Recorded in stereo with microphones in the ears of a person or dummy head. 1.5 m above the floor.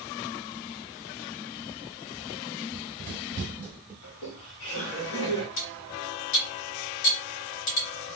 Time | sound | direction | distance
2.7 | running footsteps | 20° right (ahead or behind) | 1.5 m
4.0 | laughter | 70° left (ahead or behind) | 1.8 m
5.6 | cutlery clinking | 65° left (ahead or behind) | 1.6 m